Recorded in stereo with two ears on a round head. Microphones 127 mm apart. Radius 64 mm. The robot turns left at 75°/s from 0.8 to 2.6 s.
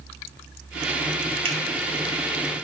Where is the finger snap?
45° right (ahead or behind), 3 m; by 1.6 s 35° right (ahead or behind), 3 m.